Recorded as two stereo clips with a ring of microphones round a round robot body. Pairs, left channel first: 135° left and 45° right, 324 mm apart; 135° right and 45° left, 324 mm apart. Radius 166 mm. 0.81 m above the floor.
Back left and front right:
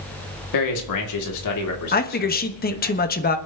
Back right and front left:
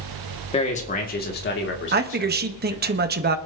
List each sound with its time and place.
0.5 s a man speaking: 155° left, 2.5 m; by 2.9 s straight behind, 3.5 m
1.9 s a man speaking: 90° left, 1.3 m